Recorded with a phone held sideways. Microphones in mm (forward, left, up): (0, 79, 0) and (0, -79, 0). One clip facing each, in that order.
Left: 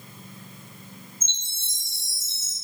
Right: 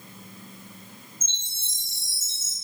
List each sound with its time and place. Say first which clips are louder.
1.2 s a chime: left 1 dB; 75° left (ahead or behind), 1.5 m